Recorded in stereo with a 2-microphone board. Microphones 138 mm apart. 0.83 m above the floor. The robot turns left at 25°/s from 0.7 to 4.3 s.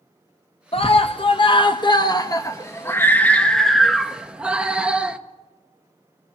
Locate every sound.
0.7 s a scream: 80° left, 0.7 m; by 5.2 s 10° right, 0.7 m